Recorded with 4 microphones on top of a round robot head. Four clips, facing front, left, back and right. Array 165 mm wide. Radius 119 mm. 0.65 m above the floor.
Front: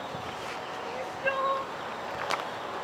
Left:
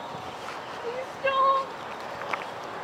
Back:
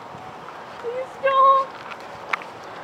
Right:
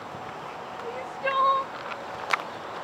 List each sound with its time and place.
0.8 s crying: 160° left